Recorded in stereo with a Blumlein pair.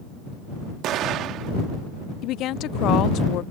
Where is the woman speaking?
35° left.